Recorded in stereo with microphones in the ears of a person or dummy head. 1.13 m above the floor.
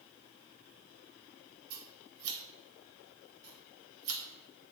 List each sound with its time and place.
1.7 s scissors: 85° right, 0.8 m